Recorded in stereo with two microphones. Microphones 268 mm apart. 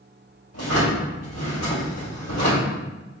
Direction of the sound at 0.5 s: 70° left (ahead or behind).